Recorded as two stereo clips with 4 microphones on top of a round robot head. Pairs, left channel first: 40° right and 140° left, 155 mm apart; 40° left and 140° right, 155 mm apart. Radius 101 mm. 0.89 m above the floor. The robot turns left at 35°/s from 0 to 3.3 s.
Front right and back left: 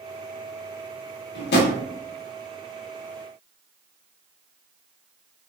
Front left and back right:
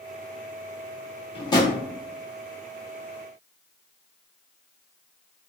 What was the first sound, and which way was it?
A drawer, 20° right.